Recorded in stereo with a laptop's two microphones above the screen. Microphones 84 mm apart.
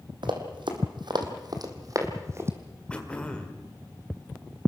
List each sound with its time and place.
0.2 s running footsteps: 70° right (ahead or behind), 3 m; by 2.5 s 30° right (ahead or behind), 3 m
2.9 s throat clearing: 15° left (ahead or behind), 1.8 m